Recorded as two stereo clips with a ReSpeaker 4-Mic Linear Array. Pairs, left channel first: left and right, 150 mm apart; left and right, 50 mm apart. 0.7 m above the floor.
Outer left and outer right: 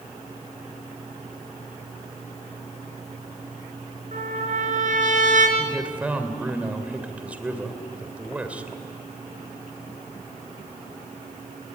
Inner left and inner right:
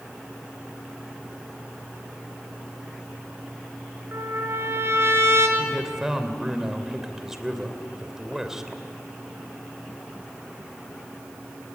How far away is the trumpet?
About 4.5 m.